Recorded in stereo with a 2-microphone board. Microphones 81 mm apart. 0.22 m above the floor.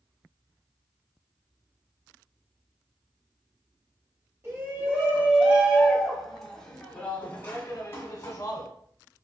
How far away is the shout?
About 1.6 m.